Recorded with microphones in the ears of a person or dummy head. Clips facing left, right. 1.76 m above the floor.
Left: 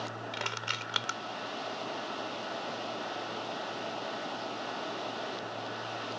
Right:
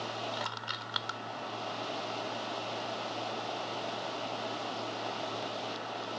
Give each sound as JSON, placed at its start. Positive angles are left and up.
{"t": 0.3, "sound": "crushing", "side_deg": 35}